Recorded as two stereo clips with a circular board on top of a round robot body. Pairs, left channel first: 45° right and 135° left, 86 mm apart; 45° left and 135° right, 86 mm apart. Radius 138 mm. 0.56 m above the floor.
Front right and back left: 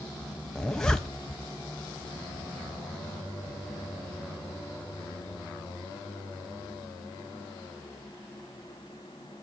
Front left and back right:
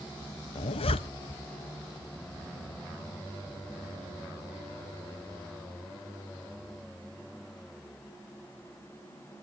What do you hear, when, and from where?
0.6 s a zipper: 40° left, 0.8 m